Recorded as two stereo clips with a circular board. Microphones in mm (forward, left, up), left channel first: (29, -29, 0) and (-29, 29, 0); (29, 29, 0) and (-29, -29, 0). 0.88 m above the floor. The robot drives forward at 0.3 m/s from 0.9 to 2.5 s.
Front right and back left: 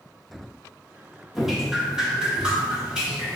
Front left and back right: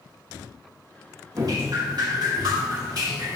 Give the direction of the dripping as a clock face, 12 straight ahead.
5 o'clock.